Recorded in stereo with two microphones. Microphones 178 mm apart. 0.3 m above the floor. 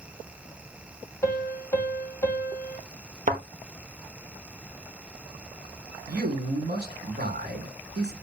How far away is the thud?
About 1.8 m.